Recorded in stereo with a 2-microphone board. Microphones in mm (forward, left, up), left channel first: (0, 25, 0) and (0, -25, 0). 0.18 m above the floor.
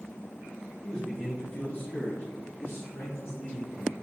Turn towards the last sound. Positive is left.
turn(degrees=60)  # may be behind; listen again after turning